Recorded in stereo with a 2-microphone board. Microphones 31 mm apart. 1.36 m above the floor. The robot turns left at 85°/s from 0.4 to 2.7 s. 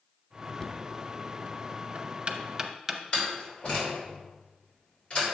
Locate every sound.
0.6 s knocking: 10° left (ahead or behind), 0.7 m; by 3.3 s 10° right (ahead or behind), 0.7 m
3.1 s a door slam: 40° left (ahead or behind), 3 m